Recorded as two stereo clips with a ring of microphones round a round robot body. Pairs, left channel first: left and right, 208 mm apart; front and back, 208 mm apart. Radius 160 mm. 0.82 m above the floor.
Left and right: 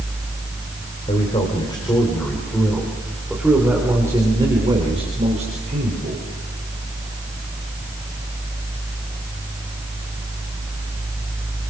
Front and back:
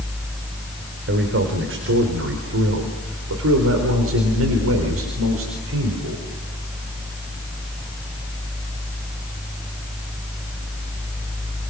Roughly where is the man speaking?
Behind.